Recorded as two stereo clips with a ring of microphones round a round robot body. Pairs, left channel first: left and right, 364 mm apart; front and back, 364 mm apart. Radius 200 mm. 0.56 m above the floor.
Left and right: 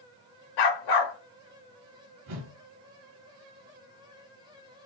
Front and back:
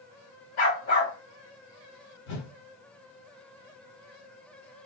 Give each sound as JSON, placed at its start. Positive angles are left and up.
{"t": 0.6, "sound": "a dog barking", "azimuth_deg": 60, "distance_m": 0.9}
{"t": 2.3, "sound": "a whoosh", "azimuth_deg": -45, "distance_m": 1.6}